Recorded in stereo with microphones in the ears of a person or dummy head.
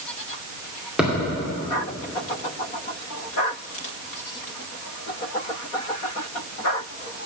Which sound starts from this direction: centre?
A thud, at 1.0 s.